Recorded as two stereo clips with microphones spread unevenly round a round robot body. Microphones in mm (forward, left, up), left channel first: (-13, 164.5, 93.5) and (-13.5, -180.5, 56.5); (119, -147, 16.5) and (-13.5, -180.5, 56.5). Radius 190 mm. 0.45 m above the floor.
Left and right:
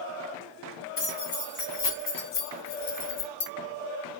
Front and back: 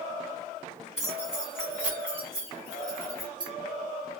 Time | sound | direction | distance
1.0 | keys jangling | 50° left | 2 m